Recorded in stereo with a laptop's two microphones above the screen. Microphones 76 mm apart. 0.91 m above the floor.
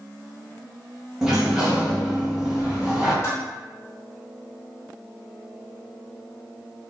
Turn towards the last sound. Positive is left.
turn(degrees=40)  # may be behind; listen again after turning